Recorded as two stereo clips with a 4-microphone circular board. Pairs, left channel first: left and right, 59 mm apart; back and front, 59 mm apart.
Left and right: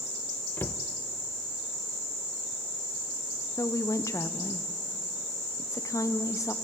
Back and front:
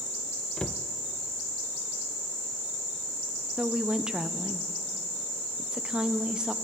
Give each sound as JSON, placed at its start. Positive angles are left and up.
{"t": 0.6, "sound": "a cupboard door", "azimuth_deg": 115, "distance_m": 0.6}
{"t": 3.6, "sound": "a woman speaking", "azimuth_deg": 75, "distance_m": 0.8}